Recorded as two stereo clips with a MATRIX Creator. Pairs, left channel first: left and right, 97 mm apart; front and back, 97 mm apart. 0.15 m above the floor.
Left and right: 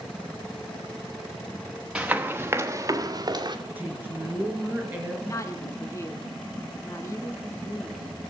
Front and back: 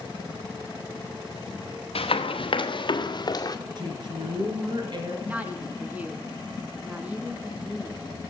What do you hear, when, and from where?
1.9 s running footsteps: 10° right, 1.3 m; by 3.5 s 50° right, 1.4 m
3.8 s a woman speaking: 155° right, 2.5 m
5.2 s a woman speaking: 120° left, 1.3 m